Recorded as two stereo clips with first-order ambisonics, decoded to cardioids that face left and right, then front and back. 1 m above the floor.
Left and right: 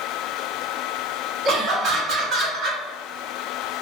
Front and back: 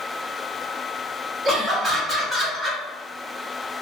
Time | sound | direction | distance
1.4 | laughter | 120° right | 0.9 m